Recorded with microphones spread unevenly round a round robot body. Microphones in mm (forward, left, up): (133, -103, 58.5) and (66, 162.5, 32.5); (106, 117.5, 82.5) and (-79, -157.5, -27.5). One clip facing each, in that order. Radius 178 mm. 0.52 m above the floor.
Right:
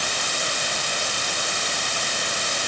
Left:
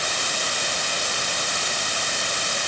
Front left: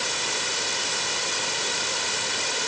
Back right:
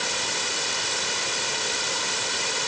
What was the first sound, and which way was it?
Only background noise.